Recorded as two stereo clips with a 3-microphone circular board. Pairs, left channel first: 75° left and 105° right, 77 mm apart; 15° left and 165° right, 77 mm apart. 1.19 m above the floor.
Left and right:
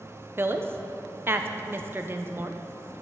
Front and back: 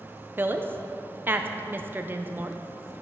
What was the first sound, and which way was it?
A woman speaking, 130° right.